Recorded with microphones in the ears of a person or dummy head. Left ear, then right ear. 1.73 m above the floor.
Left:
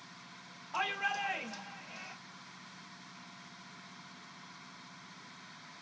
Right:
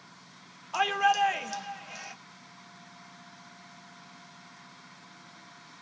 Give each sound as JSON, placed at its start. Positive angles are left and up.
{"t": 0.7, "sound": "a shout", "side_deg": -80, "distance_m": 1.0}